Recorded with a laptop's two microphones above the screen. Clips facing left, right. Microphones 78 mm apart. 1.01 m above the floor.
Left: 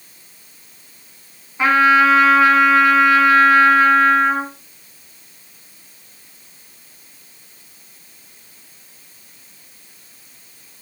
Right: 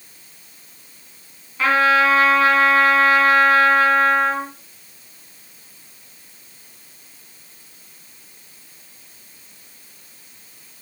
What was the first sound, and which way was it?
A trumpet, 20° left (ahead or behind).